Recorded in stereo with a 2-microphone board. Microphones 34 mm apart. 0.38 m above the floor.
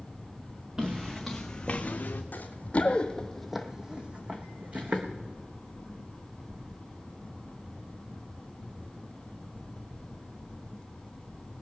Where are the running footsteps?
55° left (ahead or behind), 1.5 m; by 5.0 s 50° right (ahead or behind), 2 m.